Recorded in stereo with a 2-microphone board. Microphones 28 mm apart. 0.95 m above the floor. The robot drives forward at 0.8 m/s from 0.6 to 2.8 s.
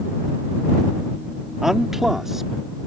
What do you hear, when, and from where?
1.6 s a man speaking: 10° right (ahead or behind)